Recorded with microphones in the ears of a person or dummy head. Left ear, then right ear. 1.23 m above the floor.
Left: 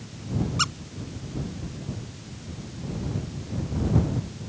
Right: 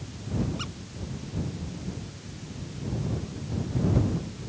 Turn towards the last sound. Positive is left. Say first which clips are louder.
# left 12 dB
turn(degrees=55)  # may be behind; listen again after turning